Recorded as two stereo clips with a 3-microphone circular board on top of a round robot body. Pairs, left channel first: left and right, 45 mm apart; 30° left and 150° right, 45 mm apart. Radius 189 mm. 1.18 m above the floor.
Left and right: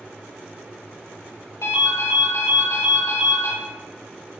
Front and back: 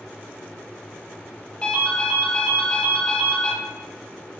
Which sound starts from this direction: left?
A ringtone, at 1.6 s.